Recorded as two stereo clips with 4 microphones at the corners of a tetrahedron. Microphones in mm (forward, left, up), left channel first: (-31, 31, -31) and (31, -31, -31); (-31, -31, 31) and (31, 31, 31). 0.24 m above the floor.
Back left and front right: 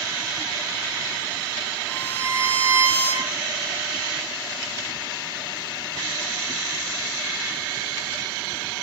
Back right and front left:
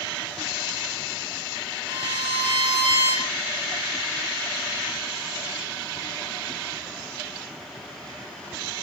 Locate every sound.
1.9 s a violin: 65° left, 8 m